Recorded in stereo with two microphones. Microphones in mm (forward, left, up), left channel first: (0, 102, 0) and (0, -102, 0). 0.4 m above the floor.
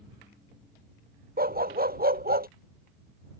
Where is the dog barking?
45° right (ahead or behind).